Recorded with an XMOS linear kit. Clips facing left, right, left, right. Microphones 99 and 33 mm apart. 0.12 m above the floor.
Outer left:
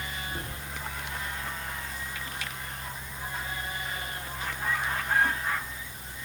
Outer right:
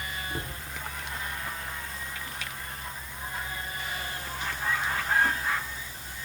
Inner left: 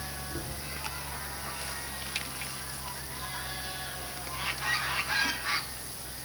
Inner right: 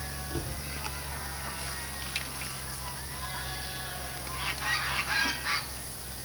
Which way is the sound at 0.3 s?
60° right (ahead or behind).